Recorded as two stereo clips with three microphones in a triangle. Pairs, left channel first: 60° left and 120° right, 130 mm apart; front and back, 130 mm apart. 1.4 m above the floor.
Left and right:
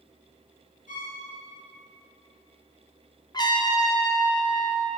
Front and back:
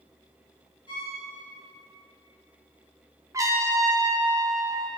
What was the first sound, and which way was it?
A violin, 55° left.